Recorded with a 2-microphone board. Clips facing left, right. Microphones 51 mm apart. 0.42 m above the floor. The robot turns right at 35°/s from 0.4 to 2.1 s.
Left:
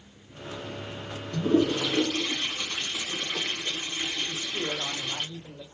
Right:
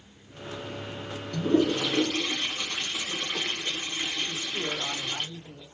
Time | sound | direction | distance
1.3 | a toilet flushing | 10° left (ahead or behind) | 1.5 m
4.3 | a man speaking | 10° left (ahead or behind) | 1.1 m